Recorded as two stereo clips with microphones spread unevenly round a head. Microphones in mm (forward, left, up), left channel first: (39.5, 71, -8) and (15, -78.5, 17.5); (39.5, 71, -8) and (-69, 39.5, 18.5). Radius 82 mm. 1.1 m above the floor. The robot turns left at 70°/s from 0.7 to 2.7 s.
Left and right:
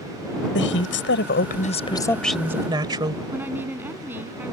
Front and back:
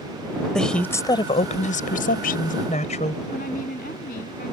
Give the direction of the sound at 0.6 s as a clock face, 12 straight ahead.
9 o'clock.